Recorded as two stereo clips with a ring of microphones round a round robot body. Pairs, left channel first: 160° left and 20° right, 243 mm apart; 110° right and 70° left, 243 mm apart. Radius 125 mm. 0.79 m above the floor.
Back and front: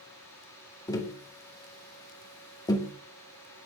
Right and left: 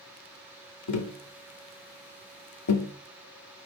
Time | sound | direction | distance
0.9 | tapping | 125° right | 2 m